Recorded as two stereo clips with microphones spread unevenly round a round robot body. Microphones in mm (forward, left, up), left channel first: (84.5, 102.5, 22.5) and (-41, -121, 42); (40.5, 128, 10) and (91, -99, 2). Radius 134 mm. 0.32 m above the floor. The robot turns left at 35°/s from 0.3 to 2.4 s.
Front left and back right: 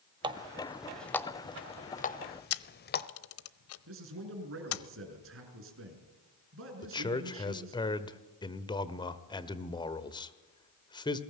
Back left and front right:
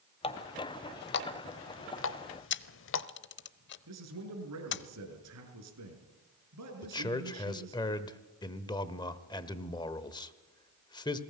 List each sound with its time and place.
0.2 s a running tap: 170° left, 0.9 m; by 3.1 s 95° left, 0.9 m
2.5 s a camera shutter: 70° left, 0.9 m
3.9 s a man speaking: 80° right, 6 m
6.8 s a man speaking: 60° left, 1.4 m